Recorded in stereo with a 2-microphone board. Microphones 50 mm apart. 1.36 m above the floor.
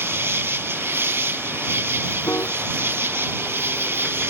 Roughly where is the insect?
Right.